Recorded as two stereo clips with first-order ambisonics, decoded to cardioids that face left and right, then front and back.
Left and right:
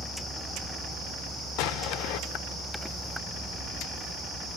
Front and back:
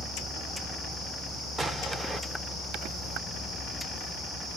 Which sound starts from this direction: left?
An explosion, at 1.6 s.